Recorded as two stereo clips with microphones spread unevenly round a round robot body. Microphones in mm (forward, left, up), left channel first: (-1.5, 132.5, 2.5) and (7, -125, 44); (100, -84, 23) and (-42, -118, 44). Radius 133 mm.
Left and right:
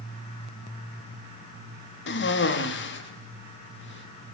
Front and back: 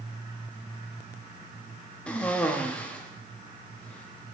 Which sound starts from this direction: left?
A cough, at 2.1 s.